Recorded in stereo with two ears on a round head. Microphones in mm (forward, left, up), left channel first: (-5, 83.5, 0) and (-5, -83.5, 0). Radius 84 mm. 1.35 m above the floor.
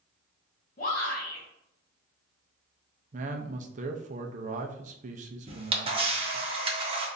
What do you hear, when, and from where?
0.8 s a shout: 40° left (ahead or behind), 1.5 m
3.1 s a man speaking: 40° right (ahead or behind), 0.6 m
5.5 s a camera shutter: 30° right (ahead or behind), 1.1 m